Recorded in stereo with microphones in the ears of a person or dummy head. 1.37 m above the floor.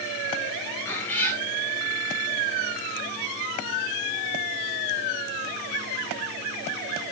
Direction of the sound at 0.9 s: 10° left (ahead or behind).